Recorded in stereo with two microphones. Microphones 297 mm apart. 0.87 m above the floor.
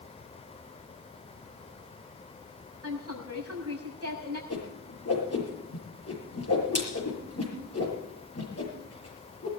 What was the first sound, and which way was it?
A woman speaking, 50° right (ahead or behind).